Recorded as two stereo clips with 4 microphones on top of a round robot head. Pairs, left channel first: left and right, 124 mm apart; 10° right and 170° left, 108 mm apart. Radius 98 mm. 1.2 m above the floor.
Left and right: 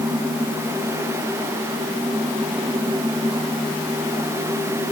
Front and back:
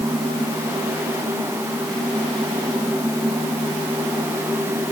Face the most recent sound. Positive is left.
No sound to turn to.